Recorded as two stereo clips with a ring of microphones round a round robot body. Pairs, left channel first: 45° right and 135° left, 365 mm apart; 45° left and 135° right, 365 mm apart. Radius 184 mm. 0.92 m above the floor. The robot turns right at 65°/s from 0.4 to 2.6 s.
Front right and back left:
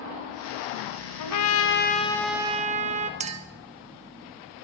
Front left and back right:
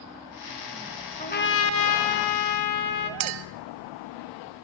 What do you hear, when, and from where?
1.2 s a trumpet: 25° right, 1.2 m; by 3.1 s 65° left, 1.2 m
3.2 s a clink: 150° right, 0.9 m